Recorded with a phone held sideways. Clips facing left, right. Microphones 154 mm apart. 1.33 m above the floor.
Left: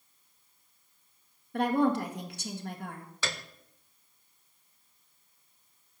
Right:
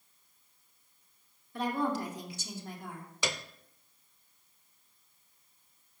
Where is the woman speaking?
65° left (ahead or behind), 1.6 m.